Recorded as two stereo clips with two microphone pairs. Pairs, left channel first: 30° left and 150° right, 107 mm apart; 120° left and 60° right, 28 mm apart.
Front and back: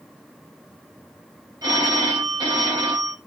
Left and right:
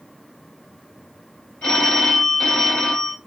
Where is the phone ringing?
165° left, 1.5 m.